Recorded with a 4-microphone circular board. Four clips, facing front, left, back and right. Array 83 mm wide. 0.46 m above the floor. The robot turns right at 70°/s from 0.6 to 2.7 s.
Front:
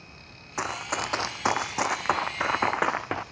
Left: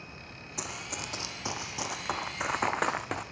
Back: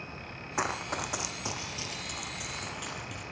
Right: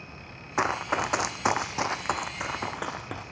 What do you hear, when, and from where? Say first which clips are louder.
0.6 s running footsteps: right 14 dB, front 2 dB; 90° right, 1.2 m; by 3.2 s 10° left, 2.0 m